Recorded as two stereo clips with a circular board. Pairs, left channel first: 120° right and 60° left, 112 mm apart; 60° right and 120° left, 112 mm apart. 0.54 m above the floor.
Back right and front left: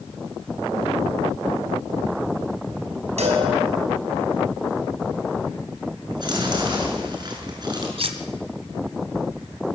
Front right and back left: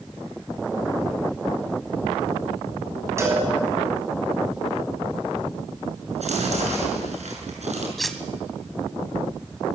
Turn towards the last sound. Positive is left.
turn(degrees=30)